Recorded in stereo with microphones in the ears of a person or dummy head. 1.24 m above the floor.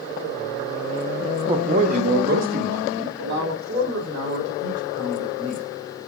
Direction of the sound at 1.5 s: 15° right (ahead or behind).